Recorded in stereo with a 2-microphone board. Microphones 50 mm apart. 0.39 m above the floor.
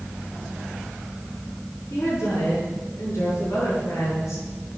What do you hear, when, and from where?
1.9 s a woman speaking: 75° left (ahead or behind), 5 m; by 4.4 s 80° left, 7 m